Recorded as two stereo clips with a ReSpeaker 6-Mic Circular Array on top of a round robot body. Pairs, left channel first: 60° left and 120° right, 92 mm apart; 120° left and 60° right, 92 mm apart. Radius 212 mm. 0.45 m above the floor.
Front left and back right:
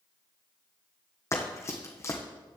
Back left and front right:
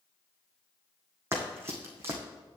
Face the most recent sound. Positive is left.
turn(degrees=0)